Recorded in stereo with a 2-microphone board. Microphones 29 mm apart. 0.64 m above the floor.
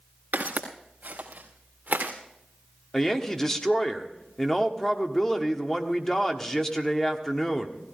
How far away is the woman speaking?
About 1.6 m.